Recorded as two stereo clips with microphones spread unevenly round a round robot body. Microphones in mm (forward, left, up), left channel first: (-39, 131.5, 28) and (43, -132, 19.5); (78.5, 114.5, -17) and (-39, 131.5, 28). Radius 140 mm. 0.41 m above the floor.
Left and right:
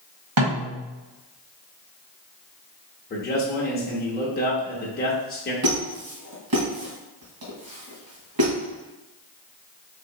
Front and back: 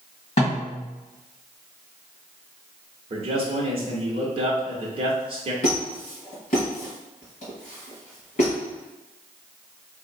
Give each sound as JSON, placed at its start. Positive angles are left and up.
{"t": 0.4, "sound": "a snare drum", "azimuth_deg": -55, "distance_m": 1.6}
{"t": 3.1, "sound": "a man speaking", "azimuth_deg": 135, "distance_m": 0.9}
{"t": 5.6, "sound": "a squeak", "azimuth_deg": -35, "distance_m": 1.6}